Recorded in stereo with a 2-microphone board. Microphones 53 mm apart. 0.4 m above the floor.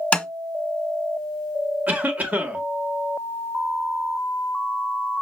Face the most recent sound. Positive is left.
turn(degrees=-30)  # may be behind; listen again after turning